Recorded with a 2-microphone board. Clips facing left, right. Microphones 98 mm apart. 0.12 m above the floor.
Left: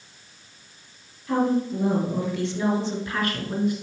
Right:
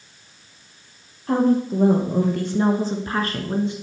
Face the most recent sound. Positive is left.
turn(degrees=-20)  # may be behind; listen again after turning